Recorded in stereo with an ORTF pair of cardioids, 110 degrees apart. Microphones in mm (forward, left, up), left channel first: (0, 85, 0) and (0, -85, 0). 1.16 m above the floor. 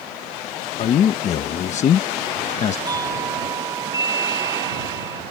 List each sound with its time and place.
0.8 s a man speaking: 45° left
2.9 s a doorbell: 20° right